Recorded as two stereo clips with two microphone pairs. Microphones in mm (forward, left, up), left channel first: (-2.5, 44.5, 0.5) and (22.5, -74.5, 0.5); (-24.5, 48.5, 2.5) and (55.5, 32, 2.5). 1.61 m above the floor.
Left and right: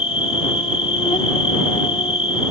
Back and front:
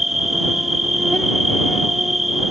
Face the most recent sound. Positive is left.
turn(degrees=75)